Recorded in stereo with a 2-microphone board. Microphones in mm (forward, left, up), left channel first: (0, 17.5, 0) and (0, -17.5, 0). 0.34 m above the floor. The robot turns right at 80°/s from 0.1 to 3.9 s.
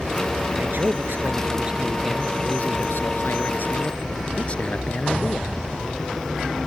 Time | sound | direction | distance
0.5 | a man speaking | 125° right | ?